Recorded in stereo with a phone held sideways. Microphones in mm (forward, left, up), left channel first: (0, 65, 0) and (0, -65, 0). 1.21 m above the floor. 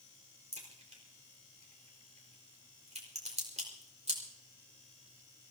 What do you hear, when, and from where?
0.5 s a crack: 60° right (ahead or behind), 4.5 m